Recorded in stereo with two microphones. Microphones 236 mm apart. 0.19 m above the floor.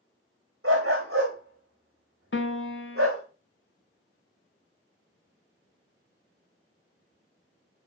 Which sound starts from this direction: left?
A piano, at 2.3 s.